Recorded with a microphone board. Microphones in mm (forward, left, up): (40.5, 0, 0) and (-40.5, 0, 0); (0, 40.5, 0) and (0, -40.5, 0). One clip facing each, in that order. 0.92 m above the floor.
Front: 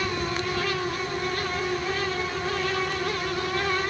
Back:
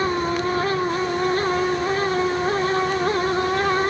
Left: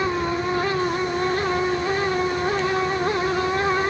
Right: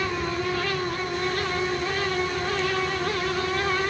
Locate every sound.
Only background noise.